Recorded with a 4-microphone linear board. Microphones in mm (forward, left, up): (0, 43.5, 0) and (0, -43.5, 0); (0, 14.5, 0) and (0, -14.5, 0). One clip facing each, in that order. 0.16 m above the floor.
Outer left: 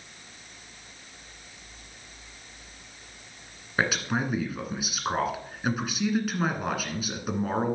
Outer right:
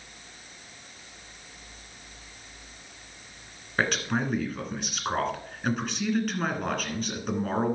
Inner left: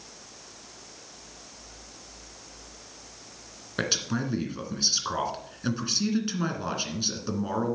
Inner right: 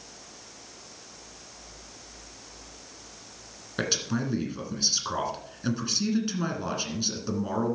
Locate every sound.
3.8 s a man speaking: 5° left (ahead or behind), 2 m